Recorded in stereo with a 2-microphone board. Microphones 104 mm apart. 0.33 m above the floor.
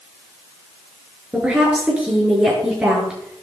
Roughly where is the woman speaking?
Centre.